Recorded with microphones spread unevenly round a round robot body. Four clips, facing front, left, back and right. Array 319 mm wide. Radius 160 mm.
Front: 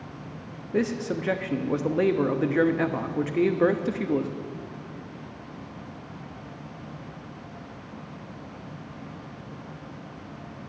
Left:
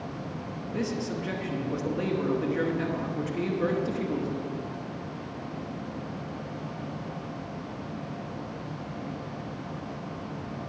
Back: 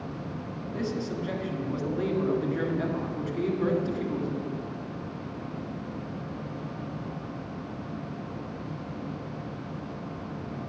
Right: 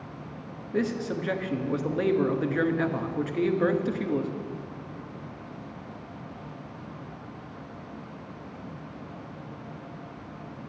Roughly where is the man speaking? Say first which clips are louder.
Right 3 dB, front 6 dB; ahead.